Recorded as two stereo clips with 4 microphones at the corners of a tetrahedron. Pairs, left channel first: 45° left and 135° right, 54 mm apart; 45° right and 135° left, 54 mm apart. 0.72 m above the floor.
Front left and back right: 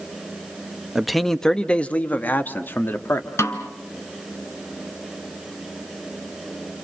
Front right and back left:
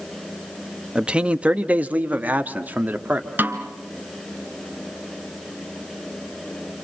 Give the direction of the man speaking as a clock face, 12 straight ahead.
7 o'clock.